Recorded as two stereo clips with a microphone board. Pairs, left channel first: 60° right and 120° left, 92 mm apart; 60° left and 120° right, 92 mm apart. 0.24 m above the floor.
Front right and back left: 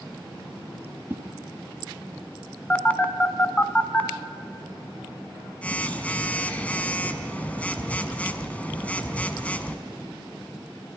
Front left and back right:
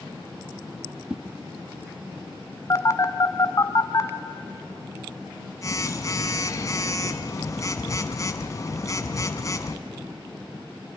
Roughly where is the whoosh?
Behind.